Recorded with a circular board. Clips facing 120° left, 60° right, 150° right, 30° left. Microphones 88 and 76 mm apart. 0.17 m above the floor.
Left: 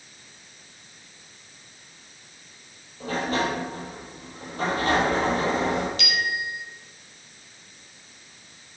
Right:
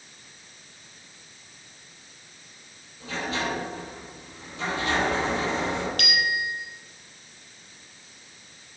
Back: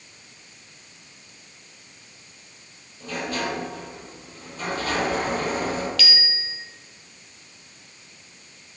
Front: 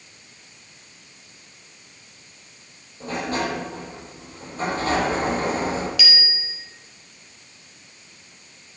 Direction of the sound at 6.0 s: 40° right.